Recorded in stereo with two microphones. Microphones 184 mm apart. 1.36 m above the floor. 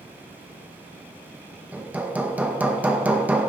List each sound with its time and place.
1.7 s hammering: 10° right (ahead or behind), 1.4 m